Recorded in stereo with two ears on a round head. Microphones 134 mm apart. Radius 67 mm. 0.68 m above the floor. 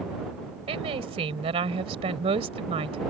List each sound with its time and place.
0.7 s a woman speaking: 40° right (ahead or behind)